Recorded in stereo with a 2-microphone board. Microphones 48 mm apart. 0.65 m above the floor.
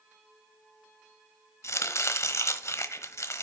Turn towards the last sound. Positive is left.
turn(degrees=80)